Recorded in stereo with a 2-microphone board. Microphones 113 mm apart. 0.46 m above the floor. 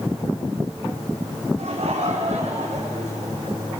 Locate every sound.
1.6 s laughter: 65° right (ahead or behind), 4.5 m; by 3.8 s 75° right (ahead or behind), 5.5 m